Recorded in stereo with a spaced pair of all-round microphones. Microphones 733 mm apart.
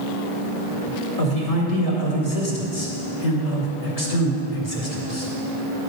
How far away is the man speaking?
About 2 m.